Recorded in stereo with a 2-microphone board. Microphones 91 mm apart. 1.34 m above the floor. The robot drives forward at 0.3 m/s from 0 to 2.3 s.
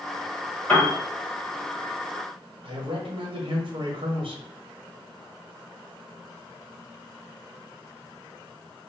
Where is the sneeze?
I don't hear a sneeze.